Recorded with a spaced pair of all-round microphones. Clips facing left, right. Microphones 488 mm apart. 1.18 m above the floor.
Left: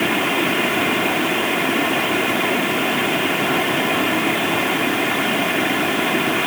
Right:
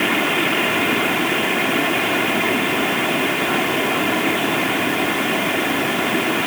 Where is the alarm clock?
I don't hear an alarm clock.